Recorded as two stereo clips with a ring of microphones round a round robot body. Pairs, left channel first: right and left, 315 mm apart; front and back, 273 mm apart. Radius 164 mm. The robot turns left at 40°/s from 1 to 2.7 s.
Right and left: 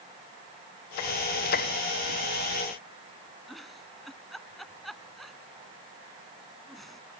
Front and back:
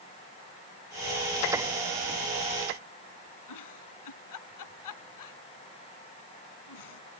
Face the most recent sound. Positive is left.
turn(degrees=0)